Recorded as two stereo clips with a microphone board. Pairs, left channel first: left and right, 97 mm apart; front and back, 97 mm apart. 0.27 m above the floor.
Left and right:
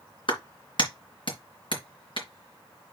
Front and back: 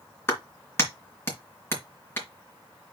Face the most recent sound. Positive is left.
turn(degrees=65)